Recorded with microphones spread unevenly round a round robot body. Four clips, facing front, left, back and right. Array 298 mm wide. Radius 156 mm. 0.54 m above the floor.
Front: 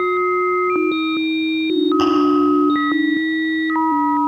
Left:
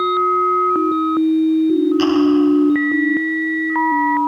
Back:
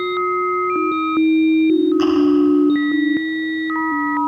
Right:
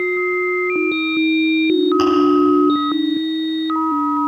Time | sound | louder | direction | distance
2.0 | chewing | even, even | 20° right | 8.5 m